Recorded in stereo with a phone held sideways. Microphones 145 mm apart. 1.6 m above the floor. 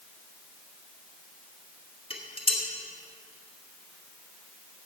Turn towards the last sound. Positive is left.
turn(degrees=40)  # may be behind; listen again after turning